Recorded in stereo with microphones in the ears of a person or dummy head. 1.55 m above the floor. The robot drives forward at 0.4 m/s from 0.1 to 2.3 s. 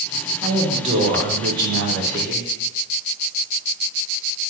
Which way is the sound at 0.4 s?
30° right (ahead or behind).